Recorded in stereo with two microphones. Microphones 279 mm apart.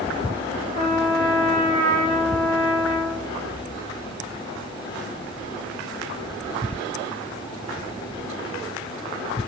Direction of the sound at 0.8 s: 25° right (ahead or behind).